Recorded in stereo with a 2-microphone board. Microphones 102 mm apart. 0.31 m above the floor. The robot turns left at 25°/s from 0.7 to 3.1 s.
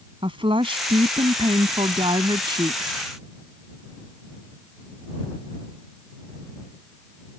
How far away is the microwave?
I don't hear a microwave.